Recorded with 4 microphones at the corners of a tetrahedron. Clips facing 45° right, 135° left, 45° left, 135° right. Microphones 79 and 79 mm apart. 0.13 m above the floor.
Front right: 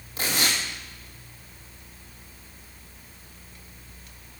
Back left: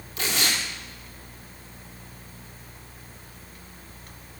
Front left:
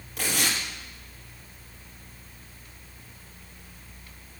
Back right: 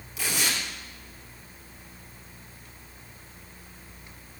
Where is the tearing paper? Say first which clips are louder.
Even, front left 1 dB; 10° left, 3.5 m.